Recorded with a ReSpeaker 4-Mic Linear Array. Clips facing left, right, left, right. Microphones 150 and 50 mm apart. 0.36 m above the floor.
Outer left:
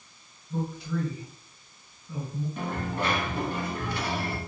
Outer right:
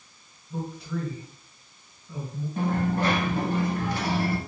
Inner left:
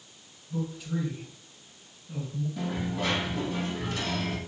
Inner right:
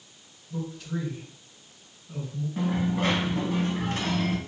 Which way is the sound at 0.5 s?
Centre (ahead or behind).